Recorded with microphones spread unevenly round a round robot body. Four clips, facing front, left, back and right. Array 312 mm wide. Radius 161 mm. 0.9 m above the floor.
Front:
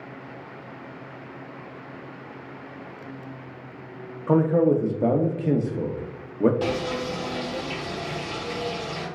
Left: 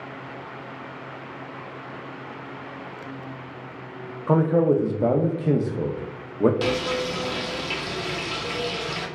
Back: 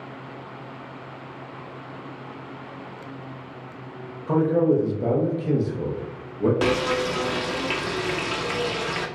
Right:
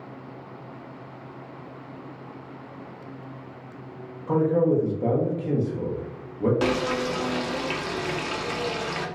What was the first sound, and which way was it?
A man speaking, 50° left.